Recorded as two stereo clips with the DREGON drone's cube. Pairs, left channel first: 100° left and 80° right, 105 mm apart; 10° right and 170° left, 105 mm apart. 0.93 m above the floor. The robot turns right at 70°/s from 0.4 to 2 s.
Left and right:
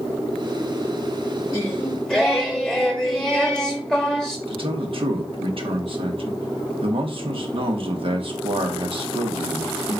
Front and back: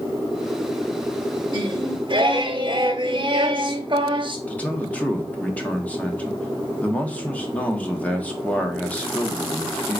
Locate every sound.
1.5 s singing: 150° left, 0.9 m; by 4.4 s 175° right, 0.9 m
4.5 s a man speaking: 85° right, 1.0 m